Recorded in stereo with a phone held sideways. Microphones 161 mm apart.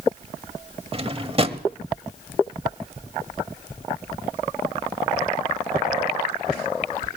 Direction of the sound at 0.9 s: 35° right (ahead or behind).